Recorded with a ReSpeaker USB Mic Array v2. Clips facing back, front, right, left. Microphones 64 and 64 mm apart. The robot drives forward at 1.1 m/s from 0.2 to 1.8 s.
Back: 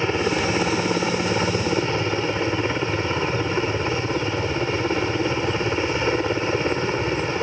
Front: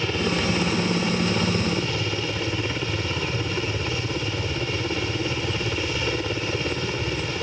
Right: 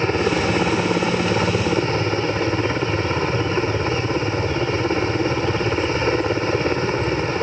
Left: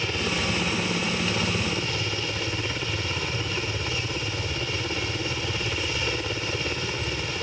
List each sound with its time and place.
0.0 s a helicopter: 125° right; by 7.4 s 130° right